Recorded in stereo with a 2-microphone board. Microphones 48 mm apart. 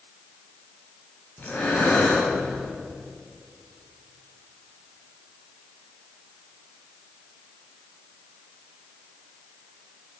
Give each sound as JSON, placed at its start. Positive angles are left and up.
{"t": 1.4, "sound": "breathing", "side_deg": 35, "distance_m": 5.0}